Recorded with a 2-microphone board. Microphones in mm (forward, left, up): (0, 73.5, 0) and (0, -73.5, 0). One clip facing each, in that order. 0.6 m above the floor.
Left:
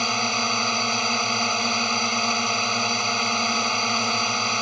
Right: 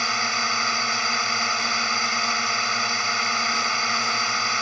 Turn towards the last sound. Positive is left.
turn(degrees=20)  # may be behind; listen again after turning